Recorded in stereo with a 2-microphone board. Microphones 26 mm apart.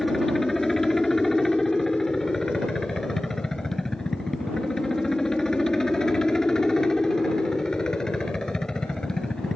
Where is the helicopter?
15° left (ahead or behind); by 9.6 s 30° left (ahead or behind).